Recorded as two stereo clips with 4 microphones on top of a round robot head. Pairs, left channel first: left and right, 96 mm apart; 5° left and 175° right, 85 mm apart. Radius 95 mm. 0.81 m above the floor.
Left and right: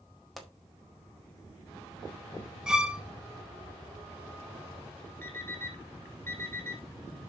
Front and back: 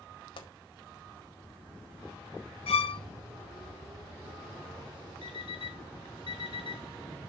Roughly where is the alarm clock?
Ahead.